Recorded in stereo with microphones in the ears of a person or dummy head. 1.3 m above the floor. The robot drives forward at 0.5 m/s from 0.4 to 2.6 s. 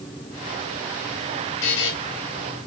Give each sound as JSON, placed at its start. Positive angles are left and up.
{"t": 1.6, "sound": "a buzzer", "side_deg": 65, "distance_m": 3.0}